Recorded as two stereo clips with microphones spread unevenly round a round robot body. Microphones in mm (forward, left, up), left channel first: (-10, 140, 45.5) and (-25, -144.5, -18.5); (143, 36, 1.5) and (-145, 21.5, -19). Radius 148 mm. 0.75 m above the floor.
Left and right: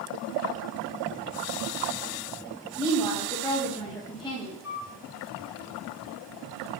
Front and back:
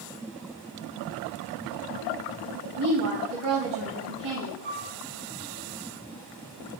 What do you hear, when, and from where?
2.8 s a woman speaking: 165° left, 3.5 m
4.6 s a flute: 125° left, 2.0 m